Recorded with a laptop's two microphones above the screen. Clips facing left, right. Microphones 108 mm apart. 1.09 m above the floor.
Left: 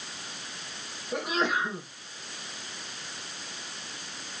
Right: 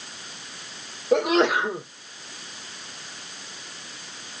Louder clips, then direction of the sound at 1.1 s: Right 9 dB; 70° right (ahead or behind).